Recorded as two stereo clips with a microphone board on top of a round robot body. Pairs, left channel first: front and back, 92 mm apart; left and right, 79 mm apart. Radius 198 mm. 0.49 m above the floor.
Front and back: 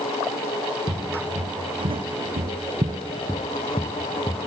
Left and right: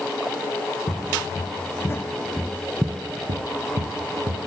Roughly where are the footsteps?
Behind left.